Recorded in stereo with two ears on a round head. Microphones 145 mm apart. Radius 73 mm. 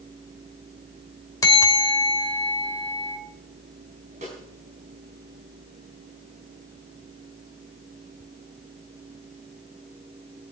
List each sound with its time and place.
1.4 s a bell: 25° left (ahead or behind), 2.0 m
4.2 s a snare drum: 45° right (ahead or behind), 5.5 m